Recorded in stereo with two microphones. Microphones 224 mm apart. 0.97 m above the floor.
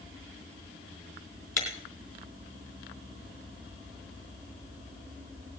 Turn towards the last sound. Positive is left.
turn(degrees=10)  # may be behind; listen again after turning